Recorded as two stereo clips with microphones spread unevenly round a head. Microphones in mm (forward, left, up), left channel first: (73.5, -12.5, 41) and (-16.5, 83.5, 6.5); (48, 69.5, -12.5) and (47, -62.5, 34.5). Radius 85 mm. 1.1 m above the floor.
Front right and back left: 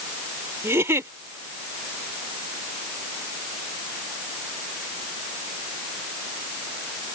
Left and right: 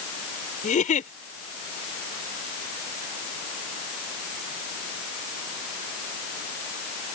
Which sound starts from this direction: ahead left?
A giggle, at 0.6 s.